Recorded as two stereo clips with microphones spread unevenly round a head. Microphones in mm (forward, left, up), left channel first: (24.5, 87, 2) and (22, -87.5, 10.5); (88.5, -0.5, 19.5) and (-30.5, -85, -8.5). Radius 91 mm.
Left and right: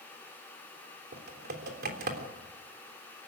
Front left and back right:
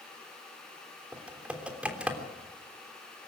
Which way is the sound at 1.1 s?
60° right.